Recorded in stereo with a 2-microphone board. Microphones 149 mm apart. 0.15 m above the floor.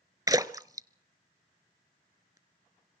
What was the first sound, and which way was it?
A splash, 25° right (ahead or behind).